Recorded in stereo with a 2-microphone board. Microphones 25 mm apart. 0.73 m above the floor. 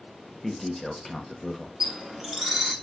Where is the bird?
15° right (ahead or behind), 0.8 m.